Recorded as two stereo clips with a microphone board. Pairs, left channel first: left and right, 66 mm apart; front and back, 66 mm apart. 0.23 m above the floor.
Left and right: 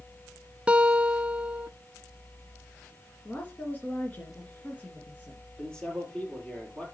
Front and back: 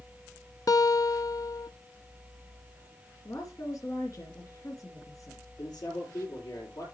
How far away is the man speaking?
About 6 m.